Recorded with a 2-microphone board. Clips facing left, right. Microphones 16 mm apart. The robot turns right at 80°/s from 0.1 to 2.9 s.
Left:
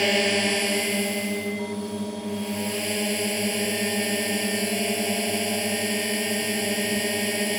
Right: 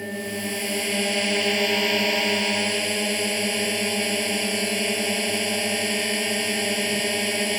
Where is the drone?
125° left; by 7.6 s 15° right.